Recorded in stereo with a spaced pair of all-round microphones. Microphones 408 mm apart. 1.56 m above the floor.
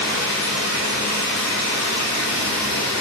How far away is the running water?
About 0.9 m.